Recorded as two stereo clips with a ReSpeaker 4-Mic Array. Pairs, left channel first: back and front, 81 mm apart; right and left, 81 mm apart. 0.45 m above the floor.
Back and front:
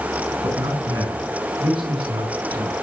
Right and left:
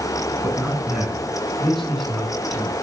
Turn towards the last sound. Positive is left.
turn(degrees=-15)